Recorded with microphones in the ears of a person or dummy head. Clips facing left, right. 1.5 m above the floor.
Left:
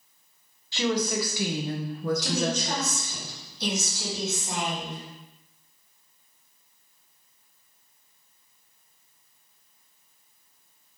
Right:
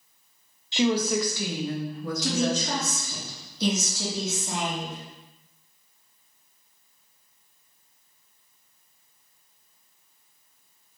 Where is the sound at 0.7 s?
20° right (ahead or behind), 0.7 m; by 3.1 s 75° left (ahead or behind), 1.1 m.